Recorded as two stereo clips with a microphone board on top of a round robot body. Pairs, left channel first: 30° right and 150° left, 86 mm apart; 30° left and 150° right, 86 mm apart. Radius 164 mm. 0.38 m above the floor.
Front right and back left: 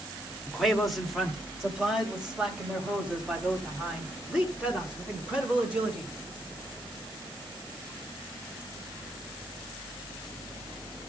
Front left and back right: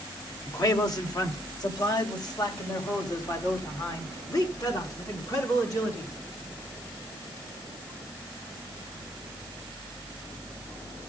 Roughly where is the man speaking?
Ahead left.